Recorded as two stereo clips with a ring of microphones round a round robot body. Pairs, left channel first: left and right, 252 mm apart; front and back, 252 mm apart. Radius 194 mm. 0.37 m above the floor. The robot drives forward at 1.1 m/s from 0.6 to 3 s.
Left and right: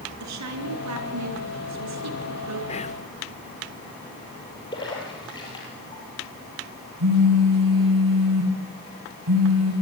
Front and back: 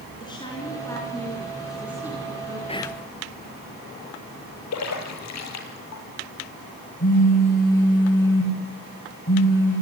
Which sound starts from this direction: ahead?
A splash, at 4.7 s.